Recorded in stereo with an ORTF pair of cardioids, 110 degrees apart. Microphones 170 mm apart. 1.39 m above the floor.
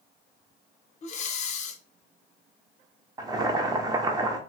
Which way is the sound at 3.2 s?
20° right.